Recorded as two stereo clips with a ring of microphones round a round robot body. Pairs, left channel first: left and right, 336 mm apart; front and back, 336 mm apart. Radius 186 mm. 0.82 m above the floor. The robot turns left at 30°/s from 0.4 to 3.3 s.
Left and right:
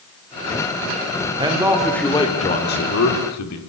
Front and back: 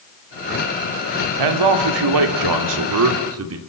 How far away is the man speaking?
About 2.5 m.